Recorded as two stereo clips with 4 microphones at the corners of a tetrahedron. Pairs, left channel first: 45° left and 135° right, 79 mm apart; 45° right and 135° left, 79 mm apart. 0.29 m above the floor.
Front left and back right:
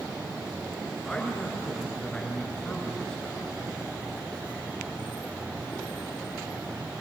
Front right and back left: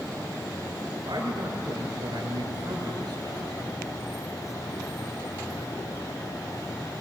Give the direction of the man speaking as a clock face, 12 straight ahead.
8 o'clock.